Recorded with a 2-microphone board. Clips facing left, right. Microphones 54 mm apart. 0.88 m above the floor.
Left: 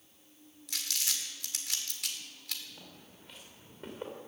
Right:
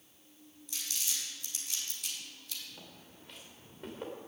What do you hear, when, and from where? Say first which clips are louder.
0.7 s crumpling: left 3 dB; 85° left, 1.8 m
2.8 s footsteps: even; 5° right (ahead or behind), 5 m; by 4.1 s 10° left (ahead or behind), 4.5 m